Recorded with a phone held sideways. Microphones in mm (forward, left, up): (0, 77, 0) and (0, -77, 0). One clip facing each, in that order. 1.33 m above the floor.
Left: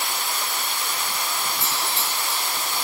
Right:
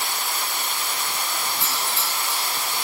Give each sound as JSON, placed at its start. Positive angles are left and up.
{"t": 1.6, "sound": "a doorbell", "side_deg": -65, "distance_m": 8.0}